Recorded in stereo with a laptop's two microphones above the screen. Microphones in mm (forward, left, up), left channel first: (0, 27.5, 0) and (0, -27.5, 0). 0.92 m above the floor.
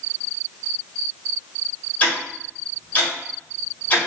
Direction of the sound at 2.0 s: 30° left (ahead or behind).